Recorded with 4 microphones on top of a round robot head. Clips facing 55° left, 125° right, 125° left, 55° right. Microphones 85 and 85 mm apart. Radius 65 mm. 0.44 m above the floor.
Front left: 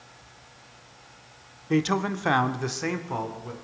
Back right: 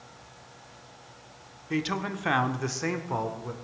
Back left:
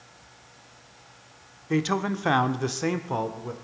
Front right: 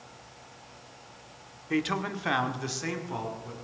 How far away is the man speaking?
About 0.9 m.